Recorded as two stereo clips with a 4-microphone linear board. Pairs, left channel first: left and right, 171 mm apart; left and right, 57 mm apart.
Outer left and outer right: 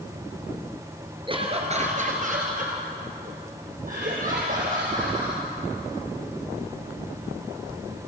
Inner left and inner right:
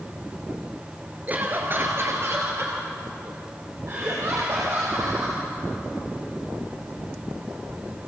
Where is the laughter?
30° right (ahead or behind), 2 m; by 5.4 s 50° right (ahead or behind), 6.5 m.